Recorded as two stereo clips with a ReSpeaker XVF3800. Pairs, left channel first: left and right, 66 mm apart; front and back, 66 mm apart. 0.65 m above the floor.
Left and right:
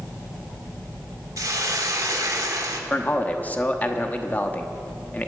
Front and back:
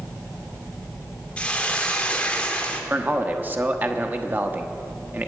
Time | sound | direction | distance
1.4 | a hiss | 70° right | 1.3 m
2.9 | a man speaking | 135° left | 0.9 m